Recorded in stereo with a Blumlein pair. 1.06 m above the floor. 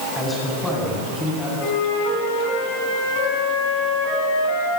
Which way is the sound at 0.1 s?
10° left.